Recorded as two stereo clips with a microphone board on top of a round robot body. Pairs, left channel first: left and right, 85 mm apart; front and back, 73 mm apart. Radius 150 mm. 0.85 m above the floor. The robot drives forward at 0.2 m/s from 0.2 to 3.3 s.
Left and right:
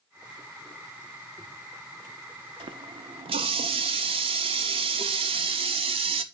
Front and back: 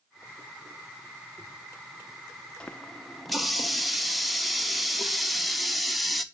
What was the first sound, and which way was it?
A running tap, 75° right.